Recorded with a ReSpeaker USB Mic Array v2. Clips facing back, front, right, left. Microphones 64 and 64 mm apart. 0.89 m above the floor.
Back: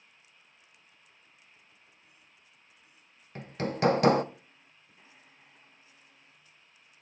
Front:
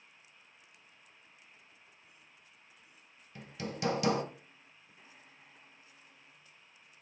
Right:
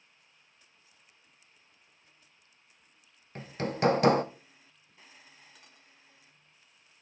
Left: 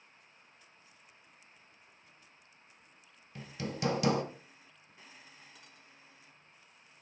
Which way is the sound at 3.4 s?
135° right.